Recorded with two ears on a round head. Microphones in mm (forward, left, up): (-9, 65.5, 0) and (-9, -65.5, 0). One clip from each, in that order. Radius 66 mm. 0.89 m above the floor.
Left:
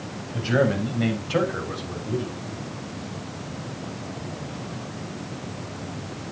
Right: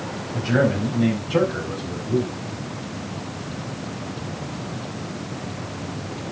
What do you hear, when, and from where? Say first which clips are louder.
0.3 s a man speaking: right 1 dB; 40° left (ahead or behind), 5 m; by 2.3 s 55° left (ahead or behind), 4 m